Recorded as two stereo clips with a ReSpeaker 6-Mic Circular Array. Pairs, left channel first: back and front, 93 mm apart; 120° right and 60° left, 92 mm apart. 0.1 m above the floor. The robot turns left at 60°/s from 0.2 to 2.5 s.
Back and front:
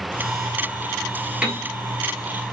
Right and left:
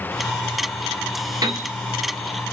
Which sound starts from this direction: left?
A piano, at 1.4 s.